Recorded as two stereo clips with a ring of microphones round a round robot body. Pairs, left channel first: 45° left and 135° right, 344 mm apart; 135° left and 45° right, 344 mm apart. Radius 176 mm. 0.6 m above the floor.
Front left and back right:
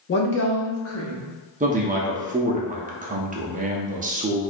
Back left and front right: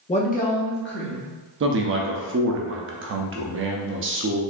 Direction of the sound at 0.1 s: 75° left.